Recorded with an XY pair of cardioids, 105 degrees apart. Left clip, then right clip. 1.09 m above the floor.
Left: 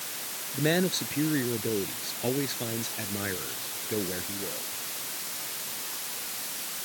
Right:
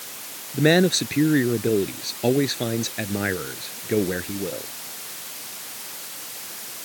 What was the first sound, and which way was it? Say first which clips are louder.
A man speaking: right 9 dB; 55° right.